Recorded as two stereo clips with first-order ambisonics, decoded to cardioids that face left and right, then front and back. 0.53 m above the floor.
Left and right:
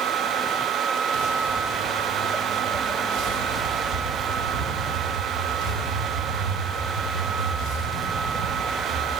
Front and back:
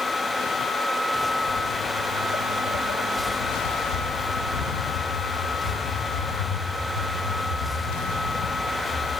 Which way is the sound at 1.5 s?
5° right.